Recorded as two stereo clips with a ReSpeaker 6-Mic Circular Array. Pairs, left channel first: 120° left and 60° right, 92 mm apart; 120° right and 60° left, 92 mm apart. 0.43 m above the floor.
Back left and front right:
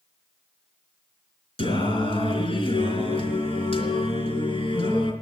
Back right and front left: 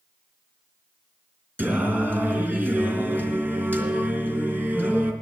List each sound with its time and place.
1.6 s singing: 130° left, 3.5 m